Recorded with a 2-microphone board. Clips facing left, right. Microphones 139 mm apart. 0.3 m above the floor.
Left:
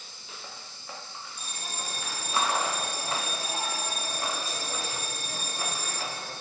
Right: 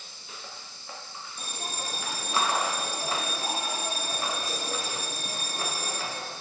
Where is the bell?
55° right (ahead or behind), 2.5 m.